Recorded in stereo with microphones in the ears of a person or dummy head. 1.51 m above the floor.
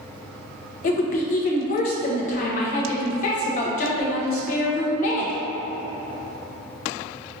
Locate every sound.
0.8 s a woman speaking: 45° left (ahead or behind), 0.7 m